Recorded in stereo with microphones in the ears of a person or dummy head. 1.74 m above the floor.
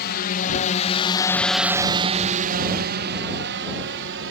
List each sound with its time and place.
0.0 s a drone: 55° left (ahead or behind); by 4.3 s 85° right